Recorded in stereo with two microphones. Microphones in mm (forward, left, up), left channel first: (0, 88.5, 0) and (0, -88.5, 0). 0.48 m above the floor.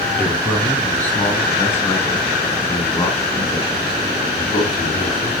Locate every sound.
0.2 s a man speaking: 5° left (ahead or behind), 5.5 m; by 5.3 s 35° left (ahead or behind), 5 m